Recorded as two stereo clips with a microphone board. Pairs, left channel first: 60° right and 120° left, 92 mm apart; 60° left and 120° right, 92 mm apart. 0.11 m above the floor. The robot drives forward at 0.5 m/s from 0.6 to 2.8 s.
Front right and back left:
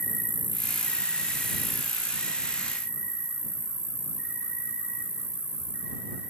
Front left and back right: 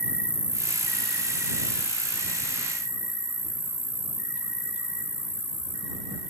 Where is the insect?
70° right, 0.7 m; by 6.3 s 165° right, 1.2 m.